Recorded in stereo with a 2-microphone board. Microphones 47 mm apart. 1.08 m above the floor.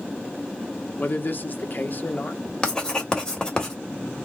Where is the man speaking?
45° left (ahead or behind), 0.7 m.